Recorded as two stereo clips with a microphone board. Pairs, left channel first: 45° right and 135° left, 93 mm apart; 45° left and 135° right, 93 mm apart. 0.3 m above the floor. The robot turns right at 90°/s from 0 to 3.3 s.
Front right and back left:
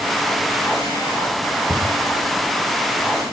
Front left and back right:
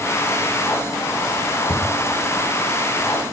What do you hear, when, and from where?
1.7 s a cupboard door: 55° left, 4.5 m; by 1.9 s 70° left, 4.5 m